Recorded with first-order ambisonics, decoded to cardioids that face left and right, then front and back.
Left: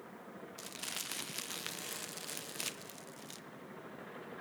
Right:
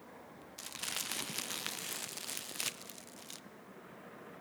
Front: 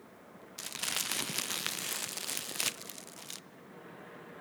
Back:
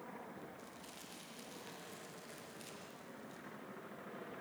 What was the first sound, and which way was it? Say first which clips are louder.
Crumpling: right 3 dB, front 17 dB; 10° right.